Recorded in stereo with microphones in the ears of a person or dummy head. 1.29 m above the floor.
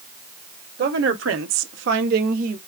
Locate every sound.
0.8 s a woman speaking: 55° right (ahead or behind), 1.0 m; by 2.6 s 45° right (ahead or behind), 1.4 m